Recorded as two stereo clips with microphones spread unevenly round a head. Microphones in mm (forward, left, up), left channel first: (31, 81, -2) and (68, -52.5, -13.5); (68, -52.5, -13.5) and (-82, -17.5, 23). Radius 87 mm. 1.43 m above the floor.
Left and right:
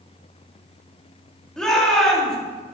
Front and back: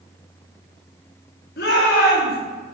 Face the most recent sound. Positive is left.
turn(degrees=20)